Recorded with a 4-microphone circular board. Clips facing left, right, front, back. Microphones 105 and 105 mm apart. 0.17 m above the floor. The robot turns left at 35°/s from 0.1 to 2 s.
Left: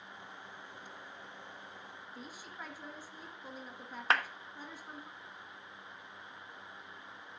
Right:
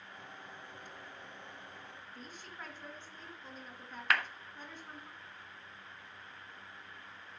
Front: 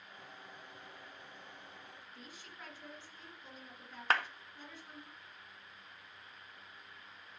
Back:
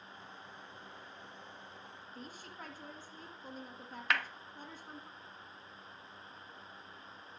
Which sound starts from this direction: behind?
A woman speaking, at 2.1 s.